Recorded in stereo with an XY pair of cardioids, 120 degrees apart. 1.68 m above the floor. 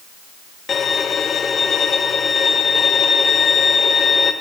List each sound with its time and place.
0.7 s a violin: 35° left, 1.7 m